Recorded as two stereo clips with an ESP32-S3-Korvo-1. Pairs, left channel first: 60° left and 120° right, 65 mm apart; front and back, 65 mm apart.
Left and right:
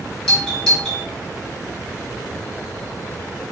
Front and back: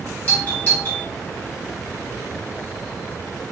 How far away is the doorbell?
About 1.5 m.